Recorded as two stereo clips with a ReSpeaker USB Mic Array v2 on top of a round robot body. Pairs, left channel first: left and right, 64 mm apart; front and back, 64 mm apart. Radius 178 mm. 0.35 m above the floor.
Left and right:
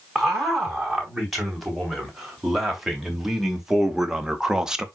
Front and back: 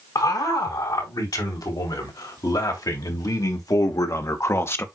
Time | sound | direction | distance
0.1 | a man speaking | straight ahead | 5 m